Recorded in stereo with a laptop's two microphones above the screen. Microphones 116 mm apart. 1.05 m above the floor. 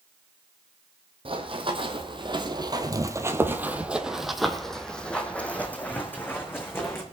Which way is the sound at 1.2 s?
50° right (ahead or behind).